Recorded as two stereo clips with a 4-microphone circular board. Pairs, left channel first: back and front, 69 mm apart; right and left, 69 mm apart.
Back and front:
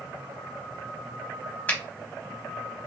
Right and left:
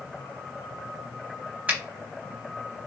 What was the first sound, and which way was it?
A finger snap, 140° left.